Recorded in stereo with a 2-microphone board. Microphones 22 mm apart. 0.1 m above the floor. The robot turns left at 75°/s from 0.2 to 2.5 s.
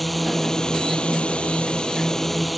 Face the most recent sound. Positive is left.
turn(degrees=5)